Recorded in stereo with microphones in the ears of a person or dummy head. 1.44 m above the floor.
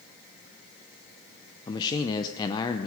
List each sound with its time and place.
1.7 s a man speaking: 20° left (ahead or behind), 0.7 m